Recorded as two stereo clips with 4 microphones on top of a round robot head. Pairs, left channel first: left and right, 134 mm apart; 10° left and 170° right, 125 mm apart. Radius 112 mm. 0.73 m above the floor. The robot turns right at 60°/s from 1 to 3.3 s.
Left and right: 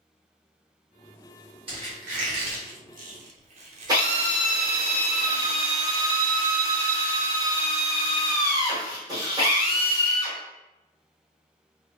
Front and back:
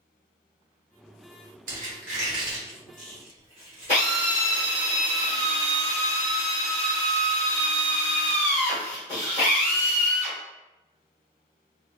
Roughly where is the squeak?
Behind right.